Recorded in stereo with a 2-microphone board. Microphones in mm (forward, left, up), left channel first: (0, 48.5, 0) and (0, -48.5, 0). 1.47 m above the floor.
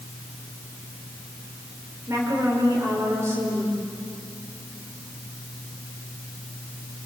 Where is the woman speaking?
30° right (ahead or behind), 5 m.